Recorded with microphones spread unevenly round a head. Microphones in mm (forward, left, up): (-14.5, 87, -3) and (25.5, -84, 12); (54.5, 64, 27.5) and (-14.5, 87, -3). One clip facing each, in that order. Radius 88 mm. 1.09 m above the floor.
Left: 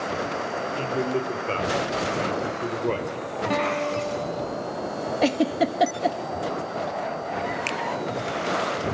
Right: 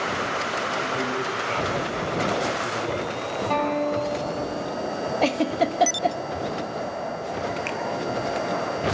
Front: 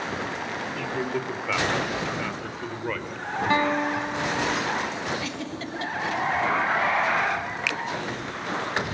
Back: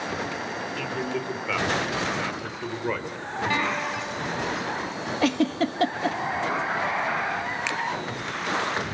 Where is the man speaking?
55° left, 4.5 m; by 3.2 s 90° left, 5 m.